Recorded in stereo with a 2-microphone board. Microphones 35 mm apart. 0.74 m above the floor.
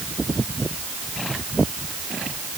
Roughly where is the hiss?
No hiss in this recording.